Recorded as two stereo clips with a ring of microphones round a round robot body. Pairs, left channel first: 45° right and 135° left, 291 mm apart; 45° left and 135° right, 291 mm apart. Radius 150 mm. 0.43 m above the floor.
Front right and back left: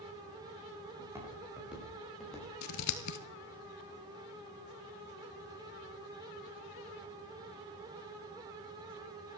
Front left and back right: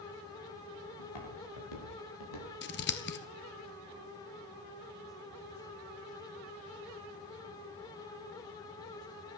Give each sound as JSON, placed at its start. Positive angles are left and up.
{"t": 1.0, "sound": "footsteps", "azimuth_deg": 55, "distance_m": 8.5}
{"t": 2.6, "sound": "scissors", "azimuth_deg": -10, "distance_m": 1.4}